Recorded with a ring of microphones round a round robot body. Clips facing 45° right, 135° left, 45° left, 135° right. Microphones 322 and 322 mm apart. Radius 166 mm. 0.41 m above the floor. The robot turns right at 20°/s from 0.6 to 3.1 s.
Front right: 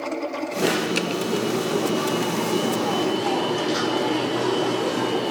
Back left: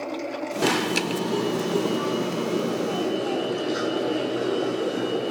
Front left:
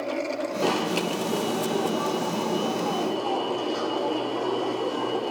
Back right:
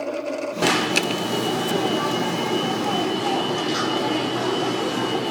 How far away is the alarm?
About 0.9 m.